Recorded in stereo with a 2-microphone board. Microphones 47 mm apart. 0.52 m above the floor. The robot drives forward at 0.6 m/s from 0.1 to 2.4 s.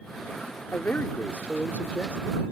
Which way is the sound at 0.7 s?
45° left (ahead or behind).